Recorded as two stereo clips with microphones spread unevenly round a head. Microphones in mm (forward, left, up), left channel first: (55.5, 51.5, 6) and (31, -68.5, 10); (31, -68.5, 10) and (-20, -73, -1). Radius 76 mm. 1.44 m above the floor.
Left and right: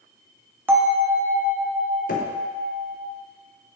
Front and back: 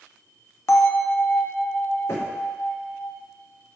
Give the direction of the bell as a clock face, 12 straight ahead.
1 o'clock.